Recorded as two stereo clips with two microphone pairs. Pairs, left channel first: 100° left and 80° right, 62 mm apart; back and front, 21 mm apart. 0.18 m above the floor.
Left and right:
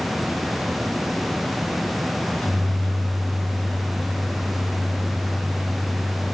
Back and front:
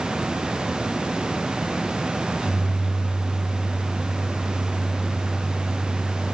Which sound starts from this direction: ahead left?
A microwave, at 2.2 s.